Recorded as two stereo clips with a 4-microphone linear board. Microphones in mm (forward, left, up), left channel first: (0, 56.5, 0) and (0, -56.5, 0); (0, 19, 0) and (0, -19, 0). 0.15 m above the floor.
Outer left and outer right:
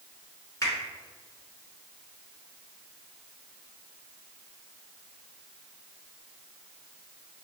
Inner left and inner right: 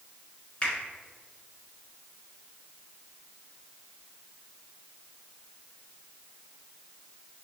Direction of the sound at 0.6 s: 30° left (ahead or behind).